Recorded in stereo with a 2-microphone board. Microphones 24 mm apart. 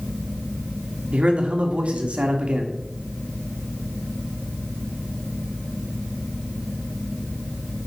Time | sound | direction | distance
1.1 | a man speaking | 60° right (ahead or behind) | 1.5 m